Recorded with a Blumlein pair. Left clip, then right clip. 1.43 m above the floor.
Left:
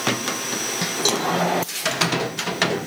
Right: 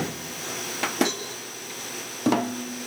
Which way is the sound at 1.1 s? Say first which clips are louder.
Left 9 dB; 30° left.